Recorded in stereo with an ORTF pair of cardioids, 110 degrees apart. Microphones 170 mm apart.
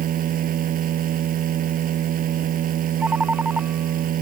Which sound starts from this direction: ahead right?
A machine running, at 0.0 s.